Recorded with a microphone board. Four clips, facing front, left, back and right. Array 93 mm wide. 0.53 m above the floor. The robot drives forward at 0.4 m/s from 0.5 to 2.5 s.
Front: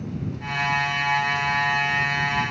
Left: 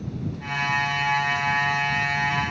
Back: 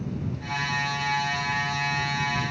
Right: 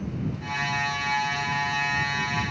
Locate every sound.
Only background noise.